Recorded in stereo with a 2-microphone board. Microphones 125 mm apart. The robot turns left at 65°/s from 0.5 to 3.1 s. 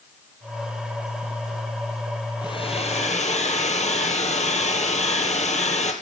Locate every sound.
2.4 s a hair dryer: 140° left, 1.4 m; by 5.9 s 95° left, 1.4 m